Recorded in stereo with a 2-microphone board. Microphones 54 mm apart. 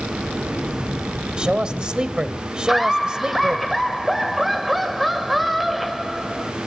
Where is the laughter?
Centre (ahead or behind), 1.1 m.